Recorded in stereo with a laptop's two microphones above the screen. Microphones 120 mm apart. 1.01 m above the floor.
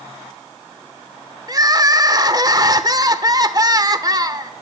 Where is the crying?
35° right (ahead or behind), 1.0 m.